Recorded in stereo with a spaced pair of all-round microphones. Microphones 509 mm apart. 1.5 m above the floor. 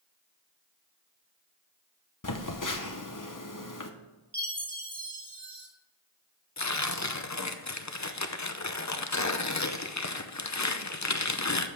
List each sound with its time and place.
2.2 s a phone buzzing: 35° left (ahead or behind), 0.9 m
4.3 s a chime: 50° right (ahead or behind), 1.6 m
6.6 s tearing paper: 35° left (ahead or behind), 0.7 m